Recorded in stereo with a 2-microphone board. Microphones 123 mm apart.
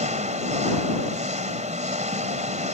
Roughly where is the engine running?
Right.